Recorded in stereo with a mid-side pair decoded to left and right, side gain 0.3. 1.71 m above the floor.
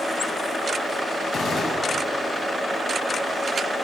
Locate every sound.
1.3 s a gunshot: 65° left, 8.5 m